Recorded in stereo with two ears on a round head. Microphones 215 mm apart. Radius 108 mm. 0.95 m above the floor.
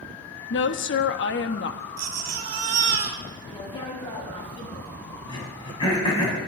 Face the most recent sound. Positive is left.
turn(degrees=20)  # may be behind; listen again after turning